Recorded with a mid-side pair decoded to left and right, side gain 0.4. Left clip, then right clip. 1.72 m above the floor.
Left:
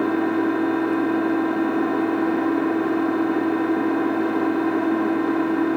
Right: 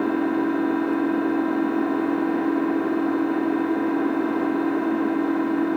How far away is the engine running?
About 3 m.